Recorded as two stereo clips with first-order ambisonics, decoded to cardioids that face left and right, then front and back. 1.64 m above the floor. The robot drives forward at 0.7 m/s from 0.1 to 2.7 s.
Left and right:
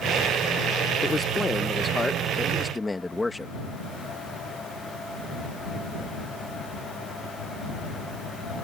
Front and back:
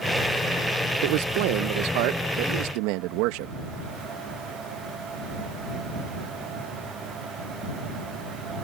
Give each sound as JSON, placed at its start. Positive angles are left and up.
{"t": 1.0, "sound": "a man speaking", "azimuth_deg": 170}